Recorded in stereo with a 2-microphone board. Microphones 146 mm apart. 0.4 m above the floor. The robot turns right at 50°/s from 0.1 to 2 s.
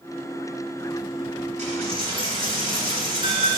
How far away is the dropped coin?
About 1.2 m.